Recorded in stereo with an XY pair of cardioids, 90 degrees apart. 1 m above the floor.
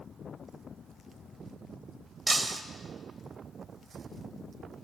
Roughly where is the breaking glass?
Ahead.